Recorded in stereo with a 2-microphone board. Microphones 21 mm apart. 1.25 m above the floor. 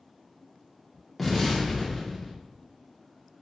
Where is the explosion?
Centre (ahead or behind), 1.0 m.